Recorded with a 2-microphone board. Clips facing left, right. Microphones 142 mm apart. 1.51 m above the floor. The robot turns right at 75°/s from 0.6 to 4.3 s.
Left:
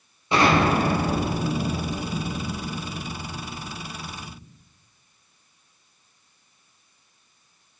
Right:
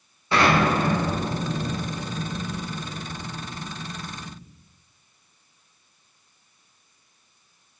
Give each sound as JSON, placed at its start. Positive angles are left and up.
{"t": 0.3, "sound": "an explosion", "azimuth_deg": 20, "distance_m": 7.0}